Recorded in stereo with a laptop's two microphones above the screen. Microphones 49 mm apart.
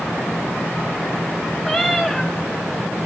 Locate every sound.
1.6 s a cat meowing: centre (ahead or behind), 2 m